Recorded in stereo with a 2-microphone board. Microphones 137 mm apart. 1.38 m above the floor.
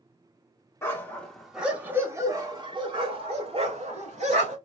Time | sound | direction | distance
0.8 | a dog barking | 20° left (ahead or behind) | 1.1 m